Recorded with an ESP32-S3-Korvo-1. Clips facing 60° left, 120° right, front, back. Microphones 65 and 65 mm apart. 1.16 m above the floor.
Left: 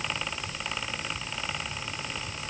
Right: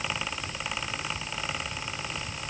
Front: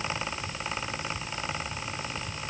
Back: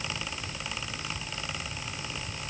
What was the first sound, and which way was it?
Only background noise.